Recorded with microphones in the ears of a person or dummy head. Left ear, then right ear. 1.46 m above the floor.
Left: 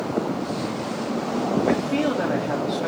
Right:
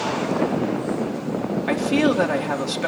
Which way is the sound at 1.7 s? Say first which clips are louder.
Right 2 dB; 85° right.